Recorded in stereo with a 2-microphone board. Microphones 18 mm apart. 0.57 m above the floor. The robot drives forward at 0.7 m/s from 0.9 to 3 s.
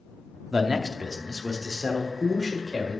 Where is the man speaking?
30° right (ahead or behind), 0.7 m; by 3.0 s 10° right (ahead or behind), 1.8 m.